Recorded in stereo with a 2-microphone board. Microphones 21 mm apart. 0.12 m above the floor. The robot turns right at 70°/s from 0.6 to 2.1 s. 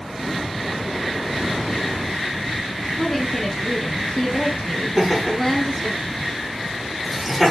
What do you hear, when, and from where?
3.0 s a woman speaking: 20° left (ahead or behind), 2 m
5.0 s laughter: 10° right (ahead or behind), 5 m